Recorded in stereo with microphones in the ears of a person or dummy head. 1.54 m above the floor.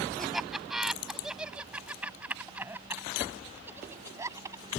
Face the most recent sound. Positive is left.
turn(degrees=-20)  # may be behind; listen again after turning